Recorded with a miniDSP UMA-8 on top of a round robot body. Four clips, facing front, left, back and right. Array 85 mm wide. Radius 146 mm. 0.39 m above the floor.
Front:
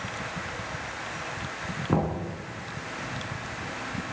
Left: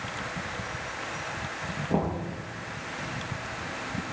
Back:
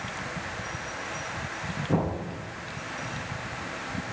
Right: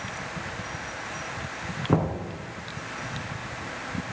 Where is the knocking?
65° right, 5 m.